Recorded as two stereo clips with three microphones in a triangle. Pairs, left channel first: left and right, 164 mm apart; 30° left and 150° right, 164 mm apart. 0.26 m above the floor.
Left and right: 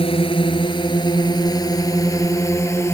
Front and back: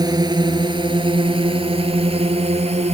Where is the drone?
145° left; by 3.0 s 165° left.